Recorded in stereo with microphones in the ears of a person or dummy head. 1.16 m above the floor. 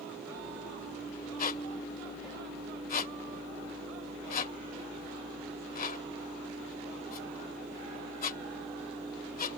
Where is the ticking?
No ticking in this recording.